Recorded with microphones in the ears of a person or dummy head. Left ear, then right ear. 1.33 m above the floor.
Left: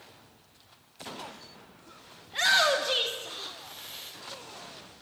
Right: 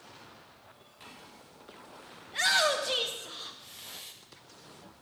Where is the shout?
5° right (ahead or behind), 0.6 m.